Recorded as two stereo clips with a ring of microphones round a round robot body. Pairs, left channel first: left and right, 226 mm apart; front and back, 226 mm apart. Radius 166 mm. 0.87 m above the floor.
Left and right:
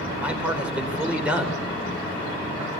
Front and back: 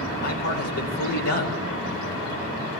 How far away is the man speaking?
About 4.5 m.